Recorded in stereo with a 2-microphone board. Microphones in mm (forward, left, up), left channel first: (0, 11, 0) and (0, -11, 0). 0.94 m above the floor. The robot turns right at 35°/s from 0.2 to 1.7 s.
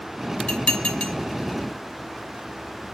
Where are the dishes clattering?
85° left, 1.1 m; by 1.1 s 65° left (ahead or behind), 1.1 m.